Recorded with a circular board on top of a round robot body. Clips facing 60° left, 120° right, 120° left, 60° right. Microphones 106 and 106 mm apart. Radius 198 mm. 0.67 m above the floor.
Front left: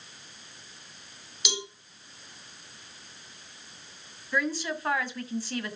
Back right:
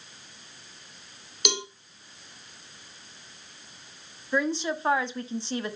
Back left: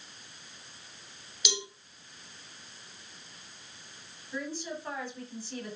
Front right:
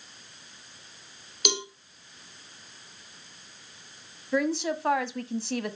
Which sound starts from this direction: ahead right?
A woman speaking, at 4.3 s.